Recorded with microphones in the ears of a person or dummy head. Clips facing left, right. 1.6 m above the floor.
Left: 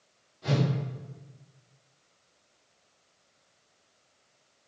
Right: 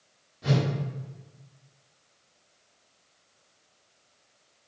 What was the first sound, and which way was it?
A whoosh, 25° right (ahead or behind).